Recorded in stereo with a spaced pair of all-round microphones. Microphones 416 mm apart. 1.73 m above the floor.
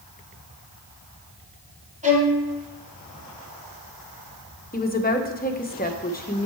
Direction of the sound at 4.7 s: 20° left (ahead or behind).